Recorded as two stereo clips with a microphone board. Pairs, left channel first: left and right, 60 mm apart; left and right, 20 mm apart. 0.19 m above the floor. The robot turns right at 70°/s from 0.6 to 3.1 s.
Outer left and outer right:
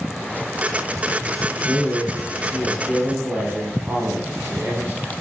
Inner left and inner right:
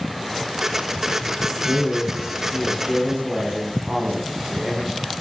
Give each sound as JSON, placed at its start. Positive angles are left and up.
{"t": 1.5, "sound": "a man speaking", "azimuth_deg": 165, "distance_m": 1.4}